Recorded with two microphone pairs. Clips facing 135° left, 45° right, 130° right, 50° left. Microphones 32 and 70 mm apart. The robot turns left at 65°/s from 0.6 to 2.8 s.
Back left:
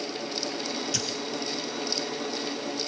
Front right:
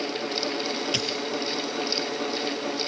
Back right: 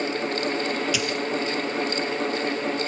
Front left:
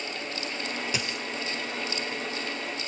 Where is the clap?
No clap in this recording.